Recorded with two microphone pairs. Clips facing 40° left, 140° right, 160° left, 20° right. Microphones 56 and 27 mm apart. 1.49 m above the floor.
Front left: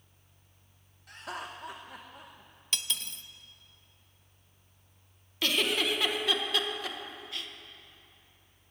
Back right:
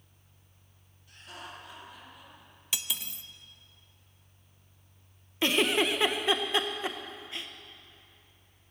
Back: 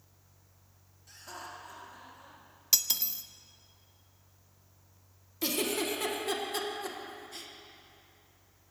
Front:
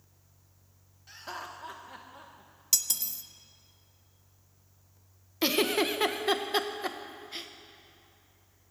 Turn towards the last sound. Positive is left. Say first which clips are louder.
# back right 3 dB, front 5 dB
turn(degrees=-75)